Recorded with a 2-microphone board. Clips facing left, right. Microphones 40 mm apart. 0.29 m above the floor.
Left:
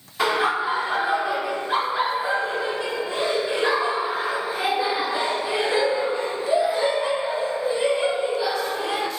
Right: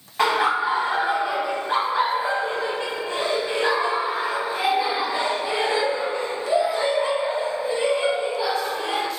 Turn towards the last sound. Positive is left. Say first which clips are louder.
# right 1 dB
turn(degrees=-50)  # may be behind; listen again after turning